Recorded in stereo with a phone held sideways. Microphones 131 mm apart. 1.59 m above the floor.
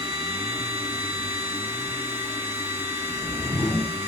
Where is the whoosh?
25° left (ahead or behind), 1.0 m.